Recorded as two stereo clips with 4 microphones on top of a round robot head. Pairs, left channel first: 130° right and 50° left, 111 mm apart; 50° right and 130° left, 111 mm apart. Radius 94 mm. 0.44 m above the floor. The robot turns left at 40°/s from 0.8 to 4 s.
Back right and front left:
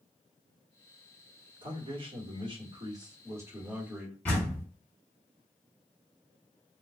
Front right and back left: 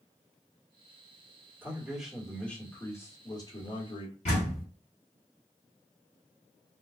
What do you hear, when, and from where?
1.6 s a man speaking: 60° left, 1.5 m; by 4.2 s 35° right, 1.5 m
4.2 s a door slam: 60° right, 2.5 m